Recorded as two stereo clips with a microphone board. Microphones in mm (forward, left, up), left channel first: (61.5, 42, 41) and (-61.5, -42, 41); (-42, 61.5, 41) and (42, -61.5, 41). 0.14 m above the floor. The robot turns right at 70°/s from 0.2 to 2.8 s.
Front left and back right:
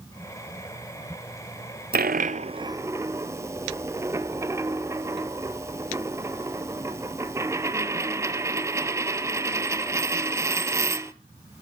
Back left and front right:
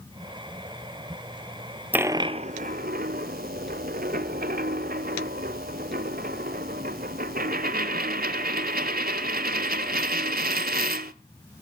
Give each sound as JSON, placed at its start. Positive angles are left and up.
{"t": 1.9, "sound": "a dropped coin", "azimuth_deg": -135, "distance_m": 0.6}